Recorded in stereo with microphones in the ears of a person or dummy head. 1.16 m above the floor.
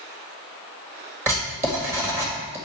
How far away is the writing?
About 1.7 m.